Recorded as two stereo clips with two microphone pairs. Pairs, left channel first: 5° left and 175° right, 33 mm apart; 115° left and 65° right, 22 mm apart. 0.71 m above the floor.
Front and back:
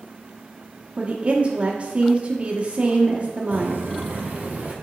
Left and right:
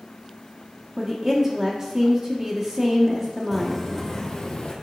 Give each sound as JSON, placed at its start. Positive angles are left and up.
{"t": 1.0, "sound": "a woman speaking", "azimuth_deg": -140, "distance_m": 1.4}
{"t": 3.5, "sound": "footsteps", "azimuth_deg": -175, "distance_m": 1.9}